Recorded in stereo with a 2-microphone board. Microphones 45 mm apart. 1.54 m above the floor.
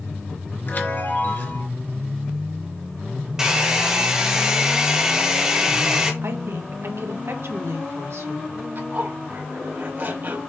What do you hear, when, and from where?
0.7 s a chime: 45° left (ahead or behind), 2.5 m
3.4 s a hair dryer: 15° right (ahead or behind), 1.6 m
6.2 s a woman speaking: 70° right (ahead or behind), 1.2 m
8.8 s a zipper: 50° right (ahead or behind), 2.5 m